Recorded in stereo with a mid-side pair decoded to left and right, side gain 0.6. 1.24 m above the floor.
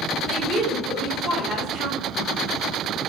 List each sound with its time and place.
0.3 s a woman speaking: 45° right, 1.7 m